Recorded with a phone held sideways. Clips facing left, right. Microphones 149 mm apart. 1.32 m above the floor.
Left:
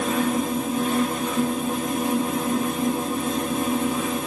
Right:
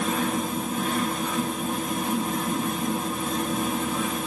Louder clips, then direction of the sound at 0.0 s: Left 3 dB; 10° left (ahead or behind).